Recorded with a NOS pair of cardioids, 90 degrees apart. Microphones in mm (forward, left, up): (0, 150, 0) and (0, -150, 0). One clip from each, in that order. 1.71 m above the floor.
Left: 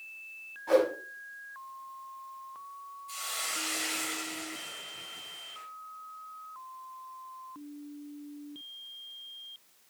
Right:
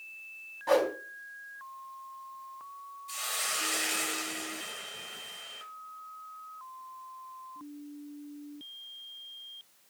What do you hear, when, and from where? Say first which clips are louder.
0.7 s a whoosh: left 1 dB; 50° right, 4 m
3.1 s a hiss: right 2 dB; 30° right, 3 m